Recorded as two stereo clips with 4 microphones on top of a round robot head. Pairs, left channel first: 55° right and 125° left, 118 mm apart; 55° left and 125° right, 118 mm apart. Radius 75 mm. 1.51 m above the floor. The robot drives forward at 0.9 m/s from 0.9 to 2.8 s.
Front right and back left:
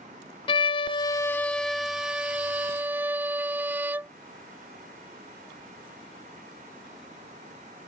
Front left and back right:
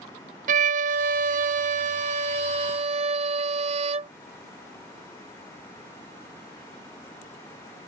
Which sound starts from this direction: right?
A violin, at 0.5 s.